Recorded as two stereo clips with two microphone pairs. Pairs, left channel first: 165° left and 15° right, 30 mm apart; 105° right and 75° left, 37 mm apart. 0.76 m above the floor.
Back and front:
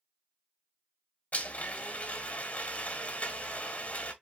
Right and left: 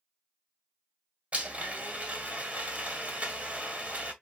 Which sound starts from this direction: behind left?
A blender, at 1.3 s.